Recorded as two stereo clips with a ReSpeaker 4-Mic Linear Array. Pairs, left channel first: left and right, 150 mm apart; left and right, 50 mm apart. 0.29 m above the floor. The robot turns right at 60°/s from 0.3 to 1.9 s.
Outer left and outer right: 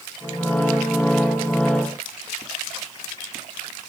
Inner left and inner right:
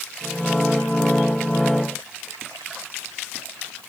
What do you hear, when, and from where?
Only background noise.